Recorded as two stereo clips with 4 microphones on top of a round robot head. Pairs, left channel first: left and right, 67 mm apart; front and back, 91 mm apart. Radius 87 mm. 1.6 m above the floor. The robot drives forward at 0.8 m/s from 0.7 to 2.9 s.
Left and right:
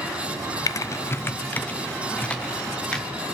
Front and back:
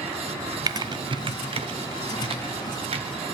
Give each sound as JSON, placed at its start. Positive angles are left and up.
{"t": 0.7, "sound": "typing on a keyboard", "azimuth_deg": 130, "distance_m": 0.6}